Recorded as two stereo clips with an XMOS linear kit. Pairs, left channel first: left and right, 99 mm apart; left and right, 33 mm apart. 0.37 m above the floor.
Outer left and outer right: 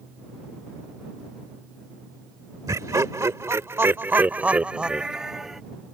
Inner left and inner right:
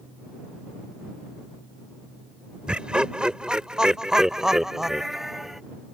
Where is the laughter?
35° right (ahead or behind); by 5.6 s 5° right (ahead or behind).